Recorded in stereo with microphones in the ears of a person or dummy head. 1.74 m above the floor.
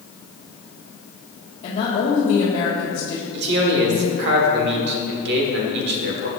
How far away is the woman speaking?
About 1.6 m.